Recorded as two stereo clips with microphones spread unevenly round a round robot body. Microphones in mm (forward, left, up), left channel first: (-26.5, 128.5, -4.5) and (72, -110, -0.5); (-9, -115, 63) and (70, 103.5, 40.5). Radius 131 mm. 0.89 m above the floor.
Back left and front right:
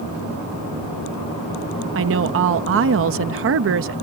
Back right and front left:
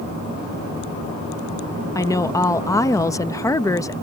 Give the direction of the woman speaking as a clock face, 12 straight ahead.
1 o'clock.